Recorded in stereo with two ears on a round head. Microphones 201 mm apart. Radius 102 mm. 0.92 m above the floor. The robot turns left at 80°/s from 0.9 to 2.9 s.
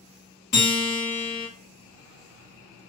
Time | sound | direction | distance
0.5 | a guitar | 35° left | 1.7 m